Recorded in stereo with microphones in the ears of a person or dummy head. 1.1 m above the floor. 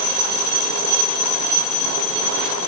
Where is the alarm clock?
I don't hear an alarm clock.